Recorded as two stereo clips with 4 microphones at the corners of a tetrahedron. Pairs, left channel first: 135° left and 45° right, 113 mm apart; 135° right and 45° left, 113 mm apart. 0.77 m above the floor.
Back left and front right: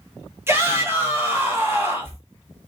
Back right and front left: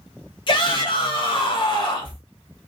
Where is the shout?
110° right, 0.9 m.